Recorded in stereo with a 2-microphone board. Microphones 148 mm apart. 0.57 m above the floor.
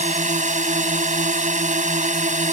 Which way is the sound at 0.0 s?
55° right (ahead or behind).